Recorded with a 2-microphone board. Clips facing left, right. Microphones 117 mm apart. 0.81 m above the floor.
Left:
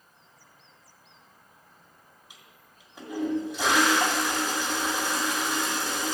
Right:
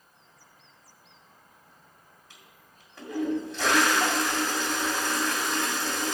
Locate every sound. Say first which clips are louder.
2.3 s a toilet flushing: even; 10° left (ahead or behind), 2 m